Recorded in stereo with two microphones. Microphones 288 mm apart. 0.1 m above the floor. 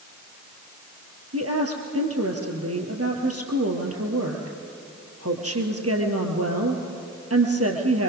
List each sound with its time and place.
1.3 s a woman speaking: 55° right (ahead or behind), 1.8 m